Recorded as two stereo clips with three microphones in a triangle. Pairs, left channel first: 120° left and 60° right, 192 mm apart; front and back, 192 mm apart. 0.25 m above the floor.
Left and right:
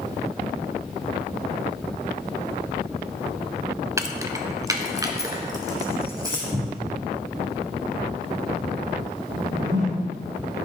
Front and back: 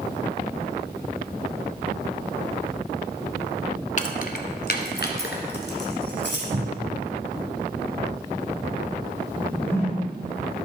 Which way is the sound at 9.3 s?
75° right.